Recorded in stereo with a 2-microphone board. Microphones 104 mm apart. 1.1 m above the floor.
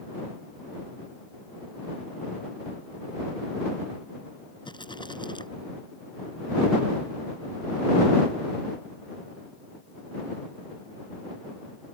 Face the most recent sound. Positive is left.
turn(degrees=50)  # may be behind; listen again after turning